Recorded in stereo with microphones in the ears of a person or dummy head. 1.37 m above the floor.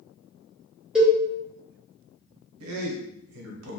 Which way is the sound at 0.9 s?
Centre (ahead or behind).